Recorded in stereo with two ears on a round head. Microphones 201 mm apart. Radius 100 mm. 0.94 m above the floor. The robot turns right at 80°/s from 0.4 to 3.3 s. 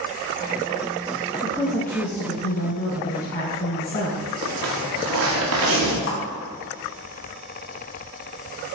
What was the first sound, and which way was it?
A woman speaking, 25° right.